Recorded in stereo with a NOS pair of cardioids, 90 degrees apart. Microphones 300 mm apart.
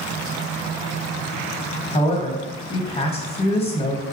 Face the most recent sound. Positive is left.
turn(degrees=20)